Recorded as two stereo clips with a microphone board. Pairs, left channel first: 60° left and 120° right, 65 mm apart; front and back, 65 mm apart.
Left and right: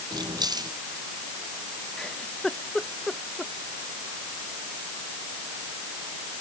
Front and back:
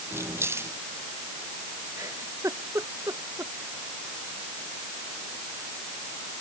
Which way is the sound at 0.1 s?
130° right.